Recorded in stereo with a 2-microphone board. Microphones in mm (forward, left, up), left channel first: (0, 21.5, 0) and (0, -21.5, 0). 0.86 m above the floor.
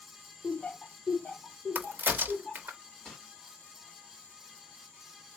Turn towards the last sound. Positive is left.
turn(degrees=5)  # may be behind; listen again after turning